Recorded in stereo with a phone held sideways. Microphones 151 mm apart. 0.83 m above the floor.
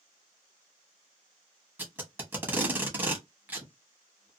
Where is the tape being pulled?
15° right (ahead or behind), 1.0 m.